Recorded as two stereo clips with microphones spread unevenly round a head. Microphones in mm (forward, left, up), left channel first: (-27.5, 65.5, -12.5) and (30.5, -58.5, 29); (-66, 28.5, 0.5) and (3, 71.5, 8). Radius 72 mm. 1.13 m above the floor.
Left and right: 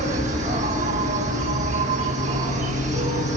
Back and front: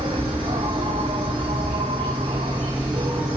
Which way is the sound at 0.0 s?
20° right.